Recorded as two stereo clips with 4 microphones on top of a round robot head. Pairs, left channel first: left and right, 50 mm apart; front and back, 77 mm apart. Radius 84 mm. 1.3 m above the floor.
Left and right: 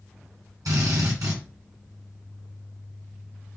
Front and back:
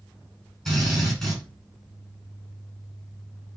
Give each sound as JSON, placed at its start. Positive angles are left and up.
{"t": 0.7, "sound": "a drill", "azimuth_deg": -90, "distance_m": 3.5}